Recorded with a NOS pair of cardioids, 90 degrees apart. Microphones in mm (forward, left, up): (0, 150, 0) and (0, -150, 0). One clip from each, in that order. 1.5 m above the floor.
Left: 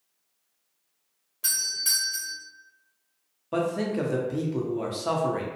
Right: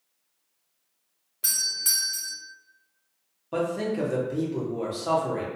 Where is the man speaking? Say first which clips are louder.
Even; 15° left, 0.8 m.